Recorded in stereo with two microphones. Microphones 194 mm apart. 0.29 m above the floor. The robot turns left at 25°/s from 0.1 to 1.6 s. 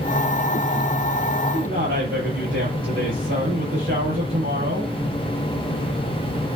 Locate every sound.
1.5 s a man speaking: 75° right (ahead or behind), 5.5 m